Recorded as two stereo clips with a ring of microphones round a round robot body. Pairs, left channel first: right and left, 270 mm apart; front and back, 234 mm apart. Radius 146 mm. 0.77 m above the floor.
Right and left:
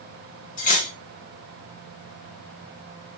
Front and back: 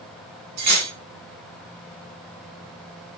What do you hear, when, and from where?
0.6 s cutlery clinking: 155° right, 2.5 m